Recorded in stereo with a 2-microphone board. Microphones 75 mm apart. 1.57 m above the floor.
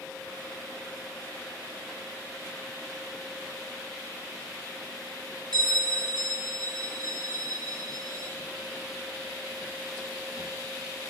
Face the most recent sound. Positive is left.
turn(degrees=-55)  # may be behind; listen again after turning